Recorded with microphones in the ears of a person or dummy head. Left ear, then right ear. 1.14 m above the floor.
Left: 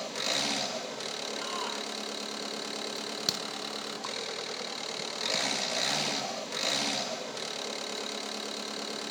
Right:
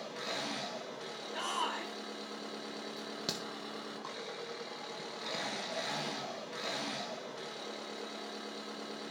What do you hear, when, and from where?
0.0 s an engine running: 75° left (ahead or behind), 0.7 m
1.3 s a shout: 50° right (ahead or behind), 2 m
3.0 s a crack: 15° left (ahead or behind), 0.6 m